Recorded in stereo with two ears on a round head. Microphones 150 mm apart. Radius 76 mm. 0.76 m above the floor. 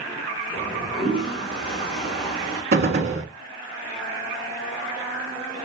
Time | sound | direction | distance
0.5 | a toilet flushing | 5° right (ahead or behind) | 2.5 m
2.7 | a gunshot | 60° right (ahead or behind) | 1.2 m